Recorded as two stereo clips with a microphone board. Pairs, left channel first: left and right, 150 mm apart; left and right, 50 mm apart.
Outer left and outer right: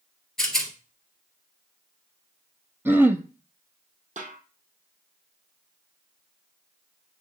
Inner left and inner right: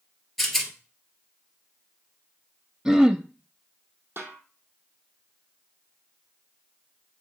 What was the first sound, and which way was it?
A rattle, 5° left (ahead or behind).